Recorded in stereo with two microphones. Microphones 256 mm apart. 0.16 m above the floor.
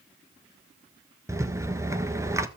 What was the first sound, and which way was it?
A rattle, 10° right (ahead or behind).